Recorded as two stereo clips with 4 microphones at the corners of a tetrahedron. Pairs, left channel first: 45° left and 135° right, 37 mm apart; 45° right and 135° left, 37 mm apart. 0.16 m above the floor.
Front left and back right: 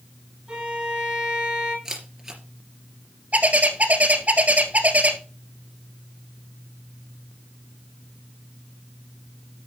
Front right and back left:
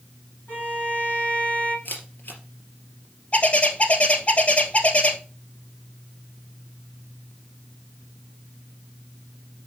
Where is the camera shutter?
60° right, 3 m.